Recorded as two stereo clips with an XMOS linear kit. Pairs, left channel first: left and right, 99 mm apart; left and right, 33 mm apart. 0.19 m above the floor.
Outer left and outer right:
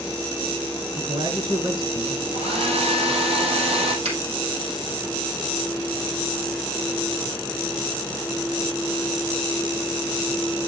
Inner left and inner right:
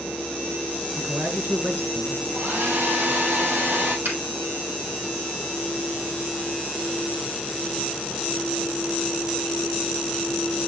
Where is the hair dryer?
80° right, 4.5 m.